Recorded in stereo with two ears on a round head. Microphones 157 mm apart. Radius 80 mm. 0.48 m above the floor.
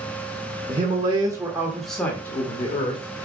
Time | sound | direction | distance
0.7 | a man speaking | 40° right (ahead or behind) | 1.5 m